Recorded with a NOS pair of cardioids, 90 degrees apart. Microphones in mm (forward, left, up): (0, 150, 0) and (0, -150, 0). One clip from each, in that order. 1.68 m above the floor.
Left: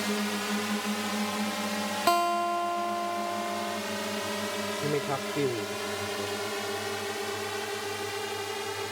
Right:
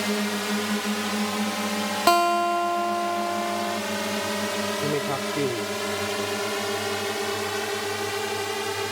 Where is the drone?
30° right; by 8.9 s 45° right.